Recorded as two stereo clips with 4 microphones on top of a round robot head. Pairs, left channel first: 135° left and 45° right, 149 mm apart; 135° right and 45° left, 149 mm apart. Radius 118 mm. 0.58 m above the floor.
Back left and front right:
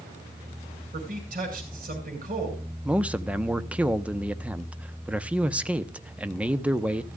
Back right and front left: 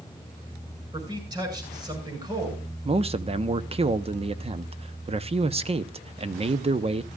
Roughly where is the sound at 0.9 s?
Ahead.